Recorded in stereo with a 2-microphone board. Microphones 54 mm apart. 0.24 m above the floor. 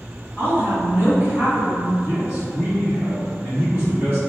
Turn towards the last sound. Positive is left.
turn(degrees=-25)  # may be behind; listen again after turning